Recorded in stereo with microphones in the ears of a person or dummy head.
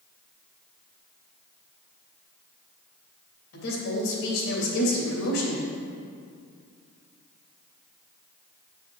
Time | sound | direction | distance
3.5 | a woman speaking | 80° left | 2.5 m